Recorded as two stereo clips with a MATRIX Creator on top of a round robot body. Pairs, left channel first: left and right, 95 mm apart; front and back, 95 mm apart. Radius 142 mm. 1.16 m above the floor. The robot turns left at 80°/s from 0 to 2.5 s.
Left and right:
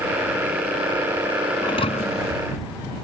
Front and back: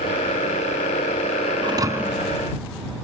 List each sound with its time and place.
1.6 s a thud: 140° left; by 2.4 s 85° left